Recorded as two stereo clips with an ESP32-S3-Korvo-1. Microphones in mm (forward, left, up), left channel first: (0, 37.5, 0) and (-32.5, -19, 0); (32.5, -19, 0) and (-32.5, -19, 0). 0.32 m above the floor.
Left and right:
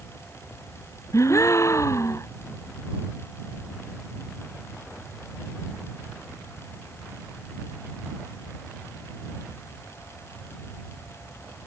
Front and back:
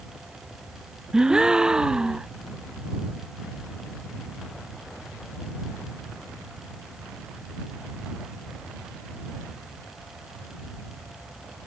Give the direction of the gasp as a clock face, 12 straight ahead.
9 o'clock.